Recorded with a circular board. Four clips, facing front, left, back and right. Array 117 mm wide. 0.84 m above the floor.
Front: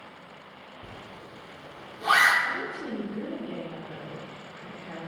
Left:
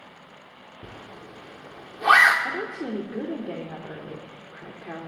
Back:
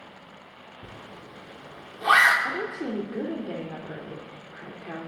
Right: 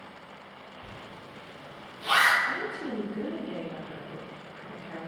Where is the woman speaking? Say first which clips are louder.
Left 2 dB, back 3 dB; 125° left, 3 m.